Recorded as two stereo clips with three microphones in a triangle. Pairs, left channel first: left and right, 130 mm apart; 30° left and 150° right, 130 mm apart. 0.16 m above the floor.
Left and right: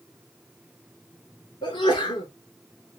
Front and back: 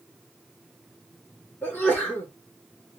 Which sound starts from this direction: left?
A sneeze, at 1.6 s.